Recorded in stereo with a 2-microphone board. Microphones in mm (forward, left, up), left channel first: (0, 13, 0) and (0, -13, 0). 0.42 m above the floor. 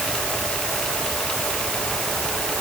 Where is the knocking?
I don't hear knocking.